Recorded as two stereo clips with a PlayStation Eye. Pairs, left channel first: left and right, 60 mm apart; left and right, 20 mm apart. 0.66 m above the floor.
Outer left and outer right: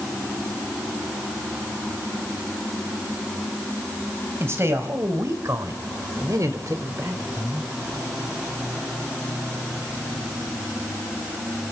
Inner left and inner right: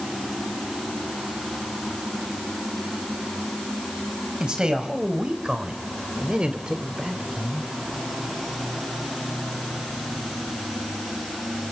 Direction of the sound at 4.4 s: 45° right (ahead or behind).